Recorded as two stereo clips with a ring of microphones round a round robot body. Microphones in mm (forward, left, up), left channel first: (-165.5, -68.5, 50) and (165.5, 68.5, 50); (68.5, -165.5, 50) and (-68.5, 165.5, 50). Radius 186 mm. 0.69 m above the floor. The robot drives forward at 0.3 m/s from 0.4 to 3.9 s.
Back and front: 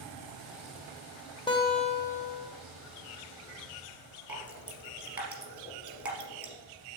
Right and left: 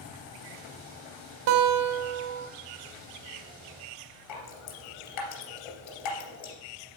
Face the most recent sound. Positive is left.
turn(degrees=-65)